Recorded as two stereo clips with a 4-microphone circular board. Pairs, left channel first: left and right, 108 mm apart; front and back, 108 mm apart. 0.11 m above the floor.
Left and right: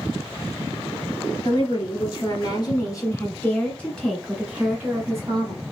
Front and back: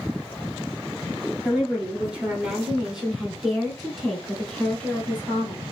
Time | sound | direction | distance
1.4 | a woman speaking | 105° left | 2 m